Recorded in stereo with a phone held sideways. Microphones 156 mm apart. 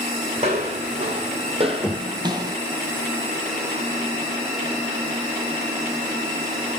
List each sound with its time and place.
0.4 s footsteps: 40° right (ahead or behind), 2.5 m; by 2.6 s 20° right (ahead or behind), 1.3 m
1.8 s knocking: 15° left (ahead or behind), 1.2 m